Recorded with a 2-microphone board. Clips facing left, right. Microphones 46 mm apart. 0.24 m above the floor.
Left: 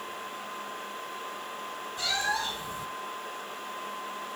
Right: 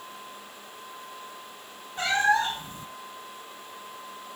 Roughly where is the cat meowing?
Right.